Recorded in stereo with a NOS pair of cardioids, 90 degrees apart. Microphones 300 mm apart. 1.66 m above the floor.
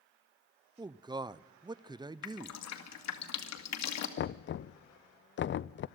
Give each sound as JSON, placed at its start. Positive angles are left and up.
{"t": 0.8, "sound": "a man speaking", "azimuth_deg": -15, "distance_m": 0.7}
{"t": 2.2, "sound": "dripping", "azimuth_deg": 65, "distance_m": 2.5}
{"t": 4.2, "sound": "knocking", "azimuth_deg": 40, "distance_m": 0.6}